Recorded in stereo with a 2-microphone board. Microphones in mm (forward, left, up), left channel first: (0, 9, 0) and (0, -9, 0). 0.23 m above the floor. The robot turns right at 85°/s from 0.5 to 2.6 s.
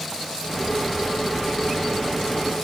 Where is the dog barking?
No dog barking in this recording.